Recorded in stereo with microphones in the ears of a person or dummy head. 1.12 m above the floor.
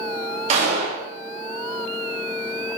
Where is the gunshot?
20° right (ahead or behind), 0.8 m.